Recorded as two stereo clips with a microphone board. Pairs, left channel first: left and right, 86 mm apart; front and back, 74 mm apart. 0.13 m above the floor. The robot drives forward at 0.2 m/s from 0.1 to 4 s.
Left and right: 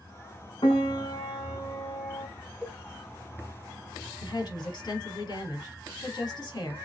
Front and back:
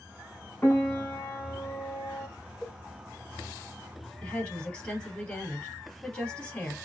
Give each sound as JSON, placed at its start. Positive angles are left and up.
{"t": 0.6, "sound": "a piano", "azimuth_deg": 60, "distance_m": 2.5}
{"t": 2.6, "sound": "a cowbell", "azimuth_deg": 30, "distance_m": 3.0}
{"t": 4.2, "sound": "a woman speaking", "azimuth_deg": 70, "distance_m": 3.0}